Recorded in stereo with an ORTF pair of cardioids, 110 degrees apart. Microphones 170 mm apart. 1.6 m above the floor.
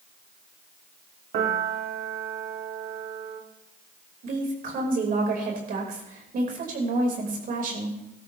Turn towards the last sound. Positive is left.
turn(degrees=-55)